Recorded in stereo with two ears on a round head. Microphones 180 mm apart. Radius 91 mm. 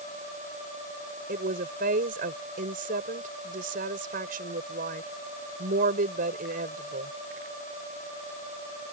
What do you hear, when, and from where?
1.3 s a woman speaking: 40° right (ahead or behind)